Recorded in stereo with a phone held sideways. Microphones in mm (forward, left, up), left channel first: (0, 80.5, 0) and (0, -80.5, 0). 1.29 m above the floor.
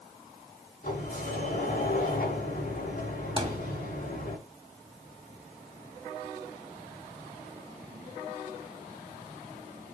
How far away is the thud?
About 2.5 m.